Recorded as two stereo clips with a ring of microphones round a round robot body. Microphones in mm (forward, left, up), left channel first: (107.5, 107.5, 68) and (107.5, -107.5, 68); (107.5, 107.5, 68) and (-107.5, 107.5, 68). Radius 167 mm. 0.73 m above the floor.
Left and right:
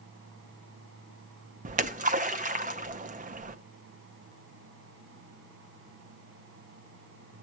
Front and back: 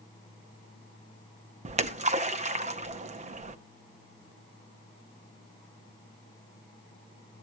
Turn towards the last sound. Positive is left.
turn(degrees=-130)